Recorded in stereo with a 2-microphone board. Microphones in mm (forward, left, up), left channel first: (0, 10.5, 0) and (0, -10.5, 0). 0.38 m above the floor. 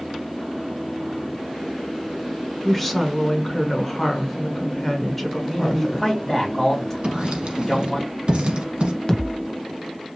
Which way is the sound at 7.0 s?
60° right (ahead or behind).